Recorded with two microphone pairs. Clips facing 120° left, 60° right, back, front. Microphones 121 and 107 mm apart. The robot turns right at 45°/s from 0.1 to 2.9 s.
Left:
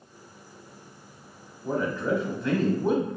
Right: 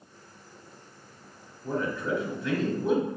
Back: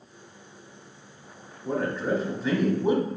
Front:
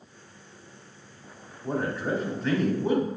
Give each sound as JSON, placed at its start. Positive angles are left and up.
{"t": 1.6, "sound": "a man speaking", "azimuth_deg": 65, "distance_m": 0.9}